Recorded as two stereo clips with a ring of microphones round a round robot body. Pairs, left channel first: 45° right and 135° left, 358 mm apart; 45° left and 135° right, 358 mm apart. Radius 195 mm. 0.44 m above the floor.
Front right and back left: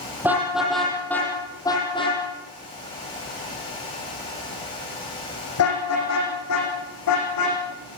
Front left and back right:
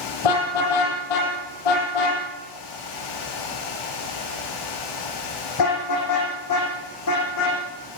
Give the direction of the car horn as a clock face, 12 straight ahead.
10 o'clock.